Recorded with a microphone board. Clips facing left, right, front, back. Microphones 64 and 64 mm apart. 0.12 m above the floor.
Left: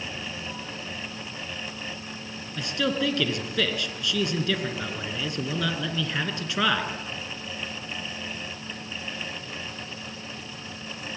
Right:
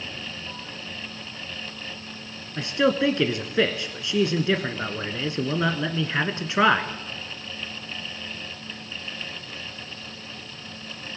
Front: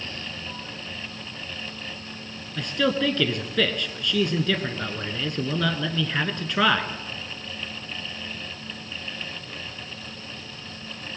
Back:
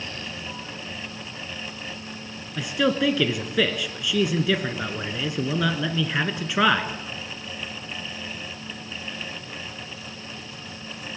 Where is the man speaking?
110° right, 1.2 m.